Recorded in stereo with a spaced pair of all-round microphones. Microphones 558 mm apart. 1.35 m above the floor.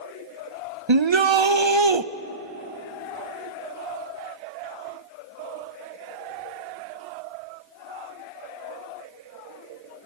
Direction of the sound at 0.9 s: 55° right (ahead or behind).